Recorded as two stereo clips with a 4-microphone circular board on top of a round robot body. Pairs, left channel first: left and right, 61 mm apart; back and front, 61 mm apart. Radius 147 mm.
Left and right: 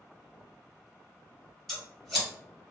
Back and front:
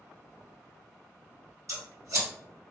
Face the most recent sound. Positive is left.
turn(degrees=5)